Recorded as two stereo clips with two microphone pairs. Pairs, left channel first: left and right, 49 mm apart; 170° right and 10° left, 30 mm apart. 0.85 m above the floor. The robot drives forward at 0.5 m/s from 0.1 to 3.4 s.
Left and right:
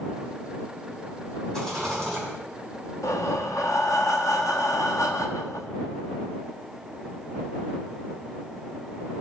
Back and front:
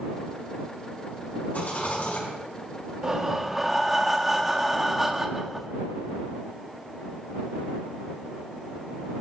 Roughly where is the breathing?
Left.